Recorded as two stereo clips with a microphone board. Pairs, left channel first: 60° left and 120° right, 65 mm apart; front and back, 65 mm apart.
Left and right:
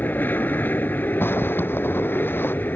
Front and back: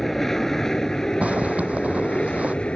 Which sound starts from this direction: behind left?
A zipper, at 1.2 s.